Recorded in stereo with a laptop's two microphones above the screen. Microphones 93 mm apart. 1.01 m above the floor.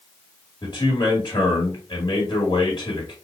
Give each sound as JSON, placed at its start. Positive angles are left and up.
{"t": 0.6, "sound": "a man speaking", "side_deg": 55, "distance_m": 2.0}